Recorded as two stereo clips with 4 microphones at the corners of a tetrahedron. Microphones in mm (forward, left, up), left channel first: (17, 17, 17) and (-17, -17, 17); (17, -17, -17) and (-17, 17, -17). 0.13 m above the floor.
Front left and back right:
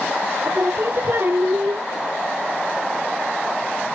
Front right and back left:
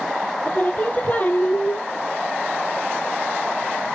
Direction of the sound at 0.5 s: 100° right.